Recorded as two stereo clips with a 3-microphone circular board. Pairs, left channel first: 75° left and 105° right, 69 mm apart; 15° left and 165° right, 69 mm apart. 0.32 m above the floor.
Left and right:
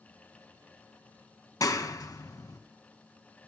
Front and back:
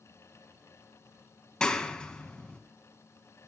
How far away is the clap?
About 2.0 m.